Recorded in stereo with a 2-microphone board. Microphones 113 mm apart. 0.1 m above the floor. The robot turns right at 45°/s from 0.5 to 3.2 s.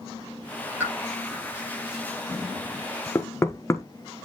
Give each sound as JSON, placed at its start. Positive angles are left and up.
{"t": 0.8, "sound": "a pop", "side_deg": -15, "distance_m": 7.0}
{"t": 3.1, "sound": "knocking", "side_deg": 25, "distance_m": 1.0}